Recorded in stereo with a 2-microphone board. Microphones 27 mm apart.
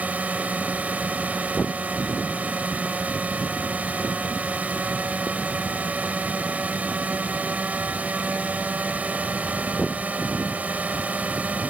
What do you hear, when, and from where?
0.0 s a drone: 80° right